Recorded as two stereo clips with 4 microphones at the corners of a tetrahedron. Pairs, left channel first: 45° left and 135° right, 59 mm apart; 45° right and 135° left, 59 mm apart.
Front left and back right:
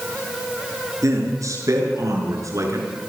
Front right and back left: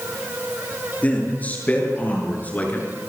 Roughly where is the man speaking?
Right.